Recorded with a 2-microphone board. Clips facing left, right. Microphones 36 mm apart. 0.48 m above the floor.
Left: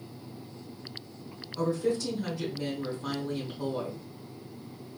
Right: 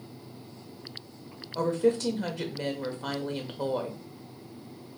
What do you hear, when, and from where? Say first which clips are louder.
1.6 s a woman speaking: right 3 dB; 55° right (ahead or behind), 1.2 m